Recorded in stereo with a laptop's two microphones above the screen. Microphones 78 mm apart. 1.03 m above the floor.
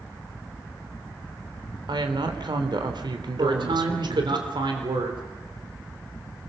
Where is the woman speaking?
70° right (ahead or behind), 3.5 m.